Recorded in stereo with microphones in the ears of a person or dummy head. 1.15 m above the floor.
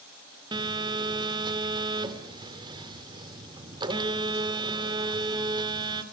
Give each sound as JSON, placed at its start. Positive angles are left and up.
{"t": 0.5, "sound": "a phone buzzing", "side_deg": -25, "distance_m": 2.5}